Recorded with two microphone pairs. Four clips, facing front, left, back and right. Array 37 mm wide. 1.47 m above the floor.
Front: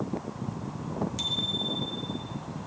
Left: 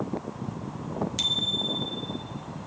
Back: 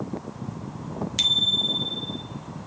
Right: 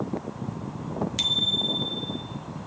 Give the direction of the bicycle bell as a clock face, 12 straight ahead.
6 o'clock.